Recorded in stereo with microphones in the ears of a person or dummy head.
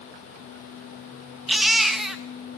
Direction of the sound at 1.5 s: 5° right (ahead or behind).